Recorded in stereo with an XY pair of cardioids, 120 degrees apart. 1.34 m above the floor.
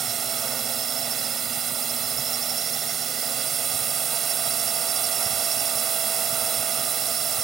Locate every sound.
0.0 s a drone: 45° right